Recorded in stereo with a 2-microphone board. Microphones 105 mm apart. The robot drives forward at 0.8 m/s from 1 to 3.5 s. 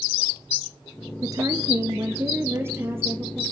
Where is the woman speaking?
35° right (ahead or behind), 1.6 m; by 3.4 s 20° right (ahead or behind), 3 m.